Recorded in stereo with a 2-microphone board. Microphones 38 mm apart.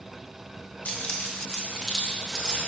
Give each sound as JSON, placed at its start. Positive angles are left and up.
{"t": 0.8, "sound": "keys jangling", "side_deg": 35, "distance_m": 1.1}